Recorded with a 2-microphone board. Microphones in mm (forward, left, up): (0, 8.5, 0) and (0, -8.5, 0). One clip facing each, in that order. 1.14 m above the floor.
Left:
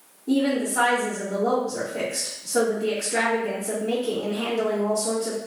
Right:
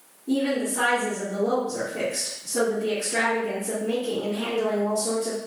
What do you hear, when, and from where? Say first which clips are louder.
0.3 s a woman speaking: left 2 dB; 80° left, 2.0 m